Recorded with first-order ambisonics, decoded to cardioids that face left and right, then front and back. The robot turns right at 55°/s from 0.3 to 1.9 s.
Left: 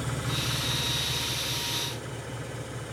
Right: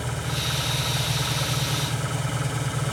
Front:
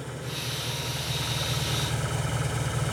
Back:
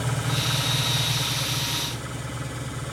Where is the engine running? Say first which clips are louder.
Right 3 dB, back 7 dB; 145° right, 1.5 m; by 2.9 s 60° right, 1.5 m.